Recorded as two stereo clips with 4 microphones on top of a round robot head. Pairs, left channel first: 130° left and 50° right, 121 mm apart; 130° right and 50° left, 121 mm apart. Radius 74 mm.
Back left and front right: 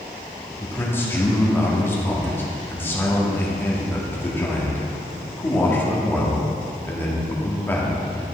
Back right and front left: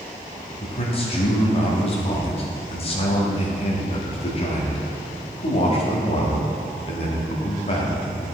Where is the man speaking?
155° right, 1.8 m.